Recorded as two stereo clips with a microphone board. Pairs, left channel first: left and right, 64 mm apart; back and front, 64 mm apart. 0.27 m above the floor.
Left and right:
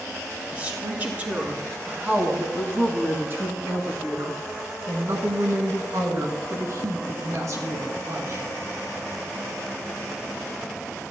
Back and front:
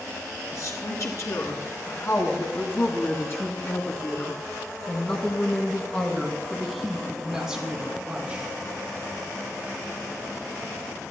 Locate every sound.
0.5 s a woman speaking: 150° right, 4.5 m; by 8.5 s 65° right, 3 m